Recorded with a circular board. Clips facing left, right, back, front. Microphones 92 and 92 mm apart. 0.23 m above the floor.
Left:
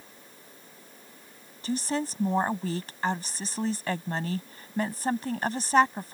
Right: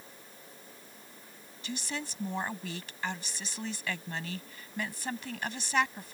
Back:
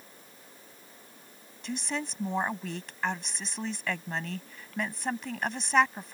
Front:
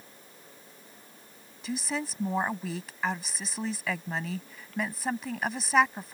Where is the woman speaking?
85° left.